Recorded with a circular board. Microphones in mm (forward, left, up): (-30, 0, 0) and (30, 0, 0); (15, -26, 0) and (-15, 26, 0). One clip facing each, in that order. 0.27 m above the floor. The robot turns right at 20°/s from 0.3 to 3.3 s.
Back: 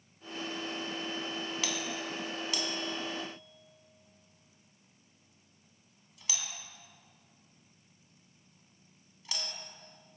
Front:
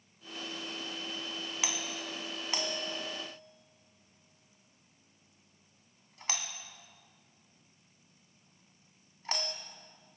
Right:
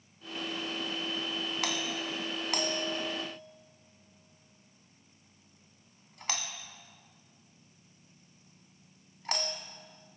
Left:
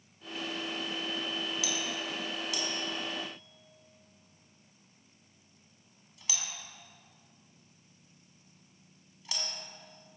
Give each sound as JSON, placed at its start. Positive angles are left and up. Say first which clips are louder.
{"t": 1.6, "sound": "a doorbell", "louder": "back 2 dB, right 1 dB", "azimuth_deg": -70, "distance_m": 2.5}